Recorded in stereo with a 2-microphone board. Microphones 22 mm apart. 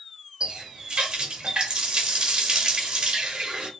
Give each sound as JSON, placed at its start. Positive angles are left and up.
{"t": 0.4, "sound": "a running tap", "side_deg": -40, "distance_m": 0.9}